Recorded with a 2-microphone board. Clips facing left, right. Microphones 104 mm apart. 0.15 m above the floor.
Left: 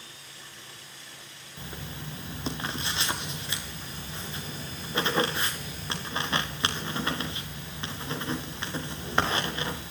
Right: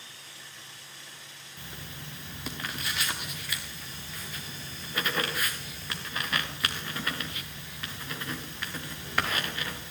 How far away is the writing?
About 4.5 m.